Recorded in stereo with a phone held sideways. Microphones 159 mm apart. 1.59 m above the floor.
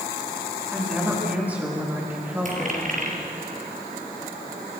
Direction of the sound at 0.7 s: 10° right (ahead or behind).